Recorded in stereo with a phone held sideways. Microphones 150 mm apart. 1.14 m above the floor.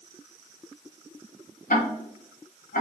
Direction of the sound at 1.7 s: 80° left.